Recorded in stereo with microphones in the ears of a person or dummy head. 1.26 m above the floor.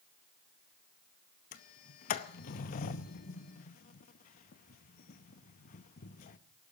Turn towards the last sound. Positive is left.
turn(degrees=45)  # may be behind; listen again after turning